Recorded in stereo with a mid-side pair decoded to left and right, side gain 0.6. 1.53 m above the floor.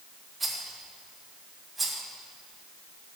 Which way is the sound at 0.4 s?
15° right.